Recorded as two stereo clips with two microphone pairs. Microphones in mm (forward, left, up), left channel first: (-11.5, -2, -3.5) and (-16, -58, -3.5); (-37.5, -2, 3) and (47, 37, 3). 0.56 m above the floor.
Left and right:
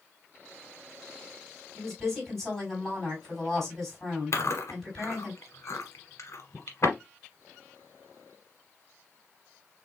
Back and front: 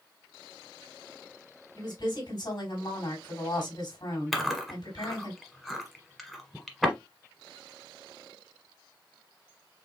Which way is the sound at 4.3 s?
115° left.